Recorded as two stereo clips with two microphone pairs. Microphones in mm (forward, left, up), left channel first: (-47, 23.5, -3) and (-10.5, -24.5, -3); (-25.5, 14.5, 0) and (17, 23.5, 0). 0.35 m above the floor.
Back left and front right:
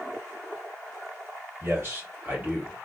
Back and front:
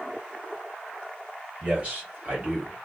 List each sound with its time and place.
1.6 s a man speaking: 30° right, 1.5 m; by 2.9 s 10° left, 1.4 m